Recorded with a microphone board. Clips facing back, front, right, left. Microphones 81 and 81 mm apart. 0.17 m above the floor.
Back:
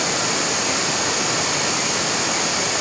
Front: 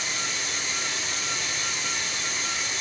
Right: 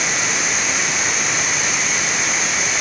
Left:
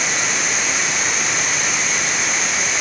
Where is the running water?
Straight behind, 2 m.